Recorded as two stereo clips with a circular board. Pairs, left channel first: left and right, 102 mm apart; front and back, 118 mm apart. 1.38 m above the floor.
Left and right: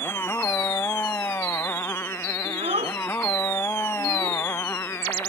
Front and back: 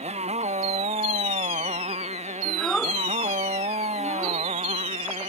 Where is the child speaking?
85° right.